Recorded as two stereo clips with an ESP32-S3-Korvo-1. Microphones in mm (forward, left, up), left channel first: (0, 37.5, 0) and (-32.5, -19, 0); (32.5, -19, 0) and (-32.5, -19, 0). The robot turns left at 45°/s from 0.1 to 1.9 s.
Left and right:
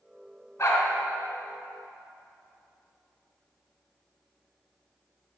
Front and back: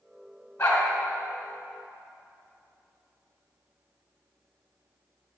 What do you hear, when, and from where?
0.6 s a dog barking: 20° left, 3.5 m; by 0.8 s 5° left, 3.5 m